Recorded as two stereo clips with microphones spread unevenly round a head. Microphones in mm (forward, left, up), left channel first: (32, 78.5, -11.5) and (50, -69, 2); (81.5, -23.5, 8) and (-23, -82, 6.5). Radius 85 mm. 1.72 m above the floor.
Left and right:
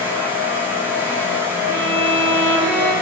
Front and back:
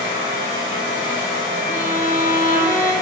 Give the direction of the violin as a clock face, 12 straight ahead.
1 o'clock.